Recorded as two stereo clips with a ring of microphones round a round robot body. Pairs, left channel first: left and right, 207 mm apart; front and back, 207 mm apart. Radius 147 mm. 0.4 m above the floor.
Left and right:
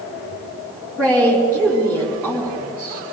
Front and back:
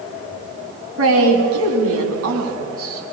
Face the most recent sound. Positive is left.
turn(degrees=-175)